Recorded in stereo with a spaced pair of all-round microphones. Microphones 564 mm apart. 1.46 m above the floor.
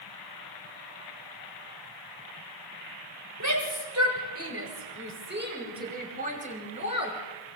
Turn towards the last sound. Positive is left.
turn(degrees=-10)  # may be behind; listen again after turning